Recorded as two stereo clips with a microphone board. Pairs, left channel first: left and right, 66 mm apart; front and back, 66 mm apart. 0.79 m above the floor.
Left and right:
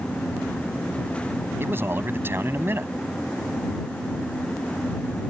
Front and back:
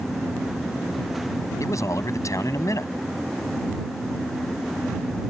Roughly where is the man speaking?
Ahead right.